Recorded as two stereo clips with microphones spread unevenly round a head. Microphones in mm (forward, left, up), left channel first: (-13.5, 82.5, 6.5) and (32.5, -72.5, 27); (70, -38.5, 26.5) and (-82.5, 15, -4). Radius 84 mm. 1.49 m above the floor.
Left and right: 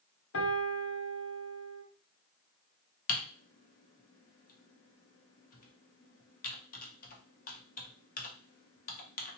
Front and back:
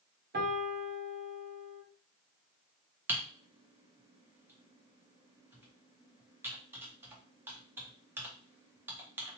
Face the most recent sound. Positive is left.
turn(degrees=75)